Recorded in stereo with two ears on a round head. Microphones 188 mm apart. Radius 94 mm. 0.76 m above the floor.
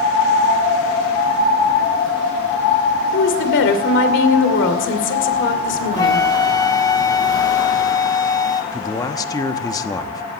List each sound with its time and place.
3.1 s a woman speaking: 65° left (ahead or behind), 2.5 m
6.0 s a flute: 20° left (ahead or behind), 0.8 m
8.7 s a man speaking: 15° left (ahead or behind), 0.9 m